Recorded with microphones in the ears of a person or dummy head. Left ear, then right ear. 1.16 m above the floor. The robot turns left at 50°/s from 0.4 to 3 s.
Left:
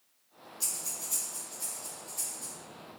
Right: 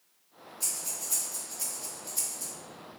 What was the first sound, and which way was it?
Breathing, 20° left (ahead or behind).